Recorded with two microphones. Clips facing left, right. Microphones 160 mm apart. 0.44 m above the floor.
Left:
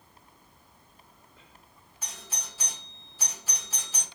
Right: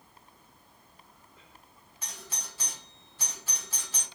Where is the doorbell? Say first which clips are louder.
Left 1 dB; 5° left (ahead or behind), 2.5 m.